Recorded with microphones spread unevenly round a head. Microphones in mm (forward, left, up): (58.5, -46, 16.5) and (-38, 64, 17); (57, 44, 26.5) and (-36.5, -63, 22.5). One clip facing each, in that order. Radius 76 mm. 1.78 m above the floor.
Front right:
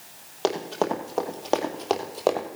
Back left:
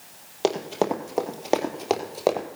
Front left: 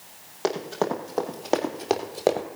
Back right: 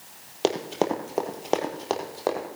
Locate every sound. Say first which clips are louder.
0.4 s running footsteps: back left 2 dB, back right 1 dB; 165° right, 2.0 m; by 2.5 s 55° left, 1.9 m